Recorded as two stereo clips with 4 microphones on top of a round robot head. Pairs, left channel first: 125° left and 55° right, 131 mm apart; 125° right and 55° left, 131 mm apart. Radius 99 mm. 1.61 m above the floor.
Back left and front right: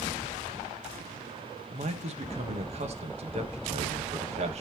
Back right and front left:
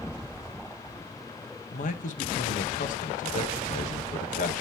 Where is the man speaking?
100° right, 1.3 m.